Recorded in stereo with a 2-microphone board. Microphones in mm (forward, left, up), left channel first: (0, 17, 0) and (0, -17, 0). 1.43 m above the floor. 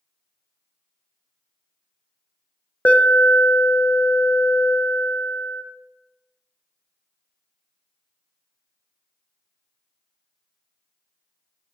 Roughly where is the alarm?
Left.